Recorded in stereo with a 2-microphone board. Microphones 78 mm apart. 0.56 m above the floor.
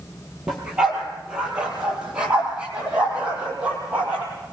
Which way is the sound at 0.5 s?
10° right (ahead or behind).